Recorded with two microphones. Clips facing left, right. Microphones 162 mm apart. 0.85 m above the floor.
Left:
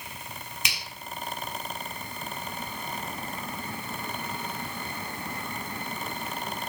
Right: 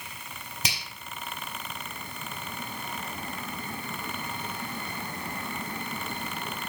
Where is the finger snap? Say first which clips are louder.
Right 4 dB; 35° right (ahead or behind), 2.5 m.